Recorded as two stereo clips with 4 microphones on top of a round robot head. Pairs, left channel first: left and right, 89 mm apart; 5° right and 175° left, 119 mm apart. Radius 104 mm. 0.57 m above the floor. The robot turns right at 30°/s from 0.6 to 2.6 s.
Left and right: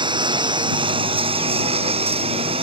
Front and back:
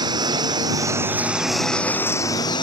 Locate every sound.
0.0 s a lawn mower: 120° right; by 2.6 s 60° right